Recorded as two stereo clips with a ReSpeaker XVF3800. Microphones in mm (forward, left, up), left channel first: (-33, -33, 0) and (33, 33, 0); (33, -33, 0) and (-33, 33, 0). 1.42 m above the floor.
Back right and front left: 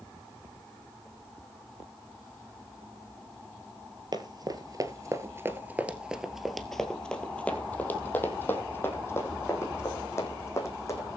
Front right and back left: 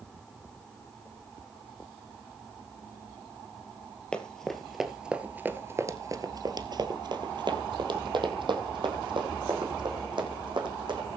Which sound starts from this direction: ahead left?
Running footsteps, at 4.1 s.